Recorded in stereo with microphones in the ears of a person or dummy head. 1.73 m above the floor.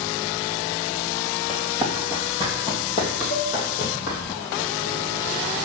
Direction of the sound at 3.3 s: 55° left (ahead or behind).